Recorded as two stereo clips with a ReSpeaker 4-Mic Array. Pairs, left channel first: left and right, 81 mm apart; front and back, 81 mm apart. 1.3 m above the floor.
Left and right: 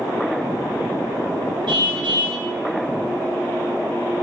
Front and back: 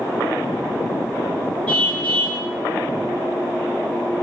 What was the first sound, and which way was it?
A car horn, 75° right.